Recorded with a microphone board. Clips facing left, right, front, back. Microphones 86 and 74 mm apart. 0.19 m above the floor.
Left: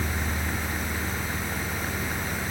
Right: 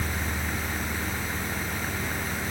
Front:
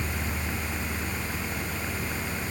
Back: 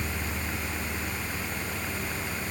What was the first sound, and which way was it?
Only background noise.